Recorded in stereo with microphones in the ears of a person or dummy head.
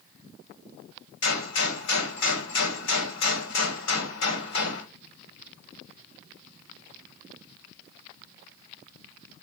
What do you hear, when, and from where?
1.2 s a gunshot: 65° left (ahead or behind), 2 m